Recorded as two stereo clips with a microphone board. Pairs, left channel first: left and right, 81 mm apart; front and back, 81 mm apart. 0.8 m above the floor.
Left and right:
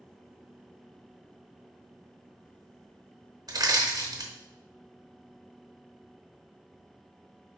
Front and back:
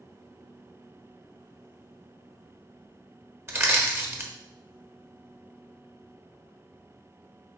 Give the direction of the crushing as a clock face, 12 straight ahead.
4 o'clock.